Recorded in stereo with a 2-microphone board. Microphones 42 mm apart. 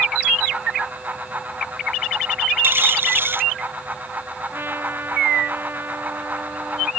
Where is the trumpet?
55° right (ahead or behind).